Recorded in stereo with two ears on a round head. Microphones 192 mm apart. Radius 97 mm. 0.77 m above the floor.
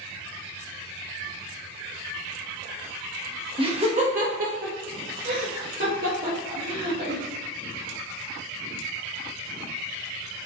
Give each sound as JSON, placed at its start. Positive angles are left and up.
{"t": 3.6, "sound": "laughter", "side_deg": -25, "distance_m": 1.0}